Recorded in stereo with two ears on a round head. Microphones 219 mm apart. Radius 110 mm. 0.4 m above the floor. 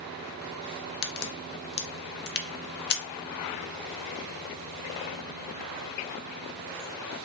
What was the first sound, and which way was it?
A crack, 45° left (ahead or behind).